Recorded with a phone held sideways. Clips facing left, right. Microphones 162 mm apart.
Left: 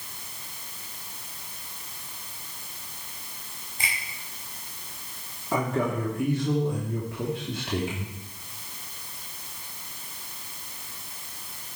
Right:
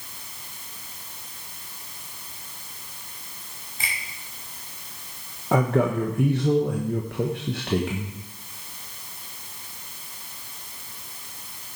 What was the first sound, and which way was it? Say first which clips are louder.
A finger snap: even; 5° right (ahead or behind).